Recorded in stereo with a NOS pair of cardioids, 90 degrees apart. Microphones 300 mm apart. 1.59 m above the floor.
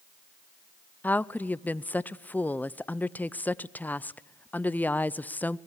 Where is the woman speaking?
5° left, 0.6 m.